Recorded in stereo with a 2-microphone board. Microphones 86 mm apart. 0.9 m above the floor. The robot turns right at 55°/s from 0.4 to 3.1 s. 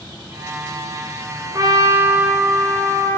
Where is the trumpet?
50° right, 2 m; by 3.2 s 35° left, 2 m.